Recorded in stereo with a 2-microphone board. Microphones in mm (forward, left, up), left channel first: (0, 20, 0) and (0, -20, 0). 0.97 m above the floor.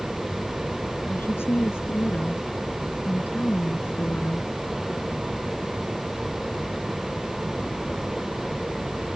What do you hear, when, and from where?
1.1 s a woman speaking: 70° left (ahead or behind)